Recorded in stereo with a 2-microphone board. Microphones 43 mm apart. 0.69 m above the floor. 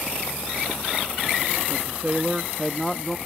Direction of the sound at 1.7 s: 40° right (ahead or behind).